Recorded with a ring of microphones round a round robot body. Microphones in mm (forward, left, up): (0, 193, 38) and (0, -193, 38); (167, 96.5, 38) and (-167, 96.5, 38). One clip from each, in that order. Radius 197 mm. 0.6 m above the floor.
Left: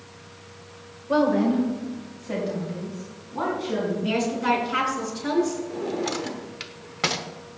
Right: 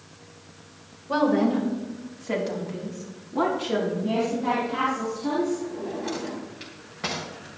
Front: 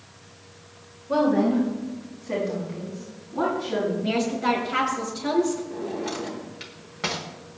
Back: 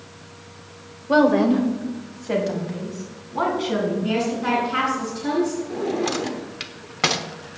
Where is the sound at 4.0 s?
55° left, 4.5 m.